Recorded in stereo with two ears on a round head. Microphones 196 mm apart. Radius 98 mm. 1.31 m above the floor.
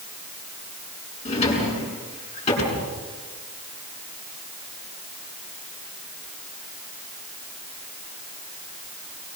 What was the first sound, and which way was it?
A drawer, 30° left (ahead or behind).